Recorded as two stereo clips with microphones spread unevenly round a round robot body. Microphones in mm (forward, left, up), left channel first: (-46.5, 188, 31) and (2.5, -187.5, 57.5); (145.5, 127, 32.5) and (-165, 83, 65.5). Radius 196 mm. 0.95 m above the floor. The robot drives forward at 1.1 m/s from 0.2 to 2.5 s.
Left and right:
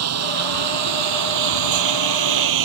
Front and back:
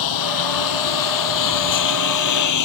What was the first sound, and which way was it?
A lawn mower, 30° right.